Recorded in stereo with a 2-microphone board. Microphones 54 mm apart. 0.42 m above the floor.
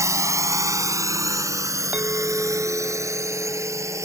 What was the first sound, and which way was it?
A drone, 65° right (ahead or behind).